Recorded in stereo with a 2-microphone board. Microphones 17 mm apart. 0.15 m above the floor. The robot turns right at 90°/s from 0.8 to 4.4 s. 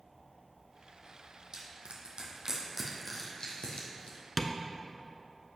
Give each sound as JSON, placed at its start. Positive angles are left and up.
{"t": 1.5, "sound": "crushing", "side_deg": -45, "distance_m": 2.0}
{"t": 4.4, "sound": "tapping", "side_deg": 15, "distance_m": 0.8}